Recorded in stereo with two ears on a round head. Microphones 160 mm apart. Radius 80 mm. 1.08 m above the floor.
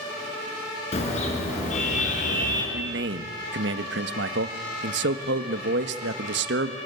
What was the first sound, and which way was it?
A car horn, 35° left (ahead or behind).